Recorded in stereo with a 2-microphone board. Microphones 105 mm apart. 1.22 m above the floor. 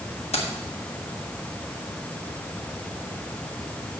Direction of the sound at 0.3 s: 80° left.